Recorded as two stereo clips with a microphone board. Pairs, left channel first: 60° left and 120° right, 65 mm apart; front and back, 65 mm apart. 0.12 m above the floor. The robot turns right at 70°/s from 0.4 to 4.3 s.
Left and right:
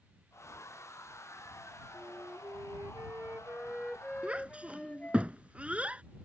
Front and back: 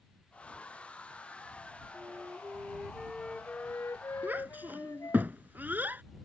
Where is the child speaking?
170° right; by 6.0 s 165° right.